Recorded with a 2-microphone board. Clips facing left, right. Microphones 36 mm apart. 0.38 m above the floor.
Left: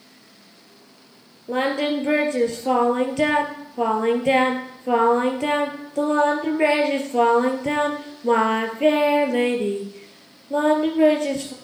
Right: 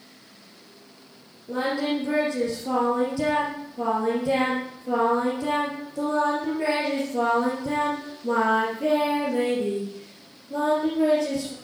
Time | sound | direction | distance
1.5 | singing | 60° left (ahead or behind) | 3 m